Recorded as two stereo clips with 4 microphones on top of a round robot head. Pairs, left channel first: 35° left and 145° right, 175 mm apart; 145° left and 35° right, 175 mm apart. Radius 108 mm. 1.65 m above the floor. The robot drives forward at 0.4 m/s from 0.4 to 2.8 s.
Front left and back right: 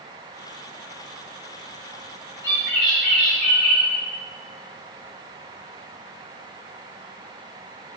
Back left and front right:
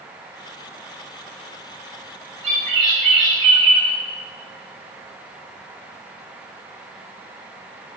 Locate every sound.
2.4 s a bird: 35° right, 0.8 m; by 3.9 s 50° right, 0.7 m